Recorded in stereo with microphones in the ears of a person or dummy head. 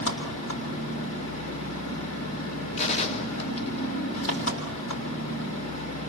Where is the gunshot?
40° left (ahead or behind), 1.1 m.